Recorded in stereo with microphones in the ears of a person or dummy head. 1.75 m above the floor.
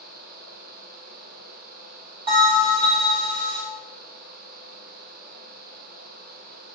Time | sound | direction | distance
2.3 | a bell | 30° right (ahead or behind) | 0.5 m